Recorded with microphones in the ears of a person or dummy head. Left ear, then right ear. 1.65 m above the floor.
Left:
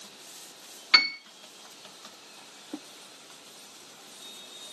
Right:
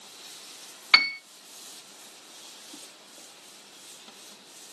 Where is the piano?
20° right (ahead or behind), 0.7 m.